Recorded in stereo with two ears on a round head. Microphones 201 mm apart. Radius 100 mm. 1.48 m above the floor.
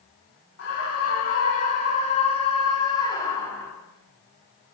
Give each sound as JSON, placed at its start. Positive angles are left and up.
{"t": 0.6, "sound": "a scream", "side_deg": 50, "distance_m": 4.5}